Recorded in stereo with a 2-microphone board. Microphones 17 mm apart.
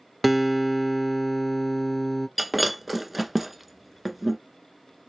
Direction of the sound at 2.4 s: 5° right (ahead or behind).